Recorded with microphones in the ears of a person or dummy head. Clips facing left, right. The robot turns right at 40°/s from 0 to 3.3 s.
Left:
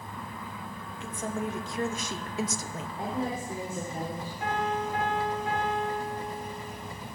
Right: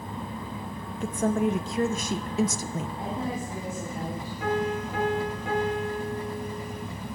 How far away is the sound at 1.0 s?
About 0.6 m.